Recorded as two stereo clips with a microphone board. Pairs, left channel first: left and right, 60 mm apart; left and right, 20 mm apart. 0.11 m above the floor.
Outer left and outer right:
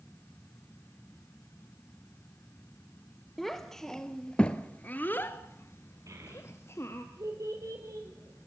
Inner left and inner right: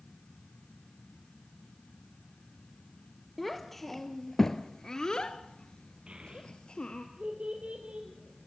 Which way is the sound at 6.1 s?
60° right (ahead or behind).